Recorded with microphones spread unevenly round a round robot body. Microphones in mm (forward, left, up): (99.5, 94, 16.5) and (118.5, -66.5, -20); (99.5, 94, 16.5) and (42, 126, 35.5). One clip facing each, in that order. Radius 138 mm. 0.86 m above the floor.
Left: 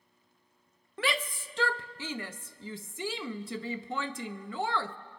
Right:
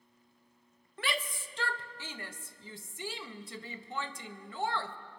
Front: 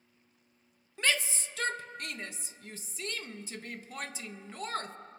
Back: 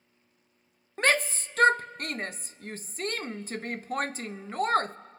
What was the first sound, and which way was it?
A shout, 100° left.